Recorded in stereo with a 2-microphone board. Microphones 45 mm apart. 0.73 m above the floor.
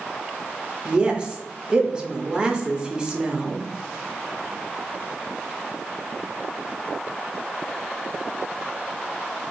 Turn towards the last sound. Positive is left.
turn(degrees=-20)  # may be behind; listen again after turning